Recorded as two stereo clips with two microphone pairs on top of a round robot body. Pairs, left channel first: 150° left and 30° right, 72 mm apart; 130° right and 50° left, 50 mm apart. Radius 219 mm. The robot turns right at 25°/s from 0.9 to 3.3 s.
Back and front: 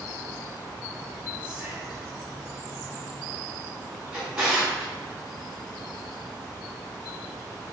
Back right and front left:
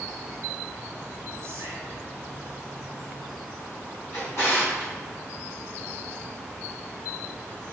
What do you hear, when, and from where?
1.4 s whispering: 40° left, 0.9 m; by 2.1 s 55° left, 0.9 m
4.1 s a drawer: 100° right, 1.1 m